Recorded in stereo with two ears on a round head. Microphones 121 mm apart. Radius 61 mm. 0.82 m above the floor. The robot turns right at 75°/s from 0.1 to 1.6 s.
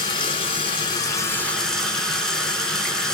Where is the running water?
60° left, 0.9 m; by 3.1 s 170° left, 0.9 m.